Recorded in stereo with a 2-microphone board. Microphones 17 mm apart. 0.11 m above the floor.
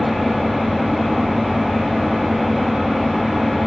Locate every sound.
0.0 s an engine running: 10° right (ahead or behind), 3 m